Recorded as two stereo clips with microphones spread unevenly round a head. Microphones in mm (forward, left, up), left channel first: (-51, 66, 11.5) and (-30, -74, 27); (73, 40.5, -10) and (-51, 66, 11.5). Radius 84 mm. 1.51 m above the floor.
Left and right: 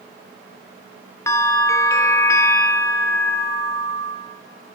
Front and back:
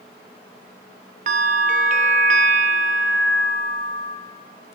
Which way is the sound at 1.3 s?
170° left.